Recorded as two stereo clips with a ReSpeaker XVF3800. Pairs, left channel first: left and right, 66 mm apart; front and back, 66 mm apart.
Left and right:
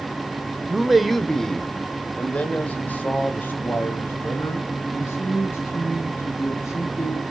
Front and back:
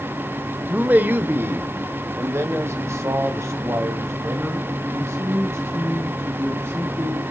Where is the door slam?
No door slam in this recording.